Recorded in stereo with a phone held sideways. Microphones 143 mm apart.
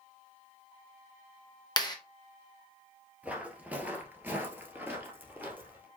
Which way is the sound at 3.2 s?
10° right (ahead or behind).